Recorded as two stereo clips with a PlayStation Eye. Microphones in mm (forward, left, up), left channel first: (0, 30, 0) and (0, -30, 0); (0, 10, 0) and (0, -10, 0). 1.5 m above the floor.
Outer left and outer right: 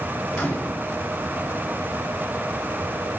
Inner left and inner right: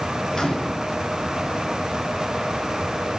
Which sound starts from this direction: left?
A microwave, at 0.3 s.